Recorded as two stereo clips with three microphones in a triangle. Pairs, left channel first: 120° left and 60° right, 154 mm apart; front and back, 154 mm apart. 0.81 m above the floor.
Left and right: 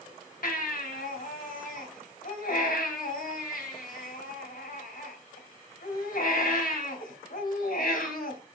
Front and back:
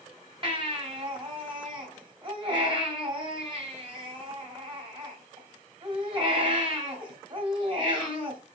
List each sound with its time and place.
0.4 s a baby crying: 130° left, 2 m